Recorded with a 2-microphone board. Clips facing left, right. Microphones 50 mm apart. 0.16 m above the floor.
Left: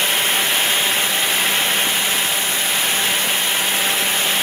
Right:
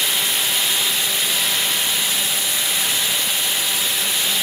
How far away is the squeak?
No squeak in this recording.